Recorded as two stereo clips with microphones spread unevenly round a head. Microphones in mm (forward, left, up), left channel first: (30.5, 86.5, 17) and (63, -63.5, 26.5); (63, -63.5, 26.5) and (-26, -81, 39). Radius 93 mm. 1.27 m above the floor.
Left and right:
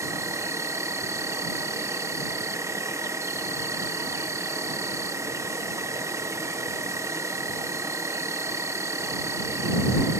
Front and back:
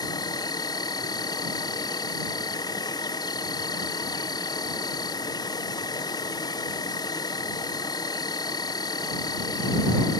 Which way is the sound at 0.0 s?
5° right.